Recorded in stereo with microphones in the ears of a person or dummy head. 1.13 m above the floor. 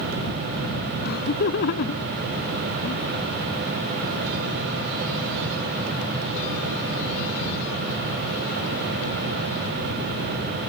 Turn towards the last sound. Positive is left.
turn(degrees=60)  # may be behind; listen again after turning